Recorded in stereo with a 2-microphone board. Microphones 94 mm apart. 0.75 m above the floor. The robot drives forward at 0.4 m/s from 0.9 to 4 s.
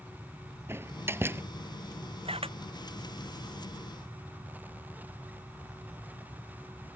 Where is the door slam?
25° right (ahead or behind).